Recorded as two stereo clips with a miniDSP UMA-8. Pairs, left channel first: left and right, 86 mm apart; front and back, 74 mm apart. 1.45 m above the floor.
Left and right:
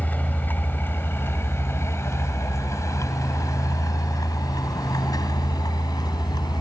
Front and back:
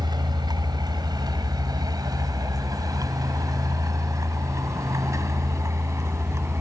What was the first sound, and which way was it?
A vehicle, 160° left.